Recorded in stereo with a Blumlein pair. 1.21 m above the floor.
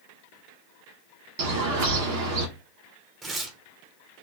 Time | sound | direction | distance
1.4 | a bird | 50° right | 0.8 m
3.2 | tearing paper | 20° right | 0.7 m